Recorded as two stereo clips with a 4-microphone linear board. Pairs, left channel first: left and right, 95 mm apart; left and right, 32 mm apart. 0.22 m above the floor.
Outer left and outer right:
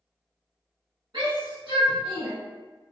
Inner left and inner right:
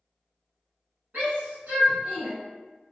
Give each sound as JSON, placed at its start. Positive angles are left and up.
{"t": 1.1, "sound": "a shout", "side_deg": -55, "distance_m": 1.7}